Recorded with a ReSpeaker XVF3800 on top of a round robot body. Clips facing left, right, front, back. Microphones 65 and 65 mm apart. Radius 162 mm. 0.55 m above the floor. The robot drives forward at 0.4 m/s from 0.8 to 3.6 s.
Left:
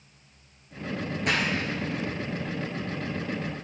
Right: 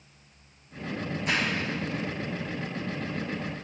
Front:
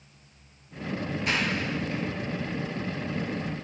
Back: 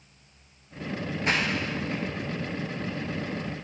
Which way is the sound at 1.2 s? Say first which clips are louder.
Left 1 dB, back 2 dB; 115° left.